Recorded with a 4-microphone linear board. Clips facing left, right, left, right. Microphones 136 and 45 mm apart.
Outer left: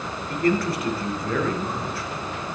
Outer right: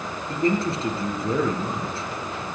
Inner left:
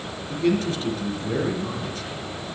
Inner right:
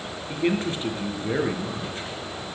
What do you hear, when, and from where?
0.3 s a man speaking: 25° right (ahead or behind), 3.5 m